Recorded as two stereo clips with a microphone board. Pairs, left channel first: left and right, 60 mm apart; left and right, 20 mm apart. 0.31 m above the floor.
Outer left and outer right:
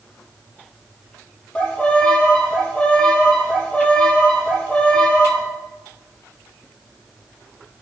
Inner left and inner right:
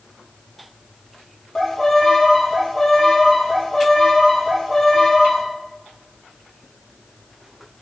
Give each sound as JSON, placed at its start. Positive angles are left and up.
{"t": 1.6, "sound": "a violin", "side_deg": 20, "distance_m": 5.0}